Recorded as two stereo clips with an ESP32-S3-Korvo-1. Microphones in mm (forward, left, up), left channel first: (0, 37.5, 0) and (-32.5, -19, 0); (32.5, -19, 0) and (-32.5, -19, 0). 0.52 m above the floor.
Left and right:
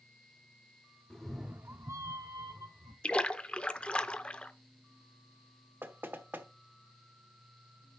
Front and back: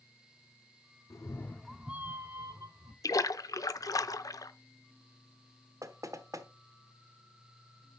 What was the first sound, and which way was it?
A cat meowing, 15° right.